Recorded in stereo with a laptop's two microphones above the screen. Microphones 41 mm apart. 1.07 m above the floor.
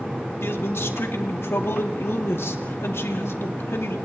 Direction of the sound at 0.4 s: 80° left.